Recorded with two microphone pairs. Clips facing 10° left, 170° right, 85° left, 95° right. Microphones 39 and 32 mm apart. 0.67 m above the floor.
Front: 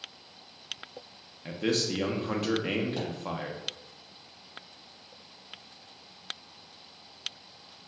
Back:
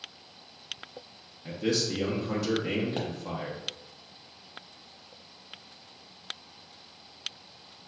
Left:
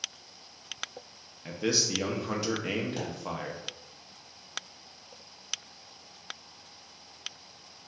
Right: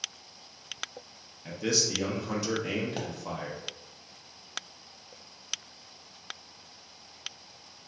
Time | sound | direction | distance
1.4 | a man speaking | 25° left | 0.6 m
3.0 | a pop | 160° right | 0.7 m